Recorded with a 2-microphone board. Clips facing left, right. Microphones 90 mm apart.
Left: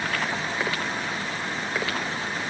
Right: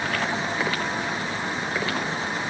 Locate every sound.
Only background noise.